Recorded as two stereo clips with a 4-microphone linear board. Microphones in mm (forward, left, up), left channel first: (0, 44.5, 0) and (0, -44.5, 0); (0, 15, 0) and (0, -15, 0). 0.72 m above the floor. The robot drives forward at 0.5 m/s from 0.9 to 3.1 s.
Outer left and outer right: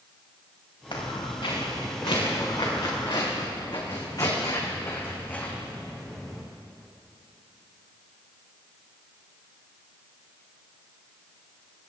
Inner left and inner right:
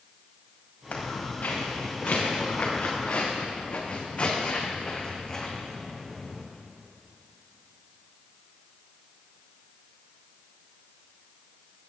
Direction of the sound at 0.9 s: 70° left (ahead or behind).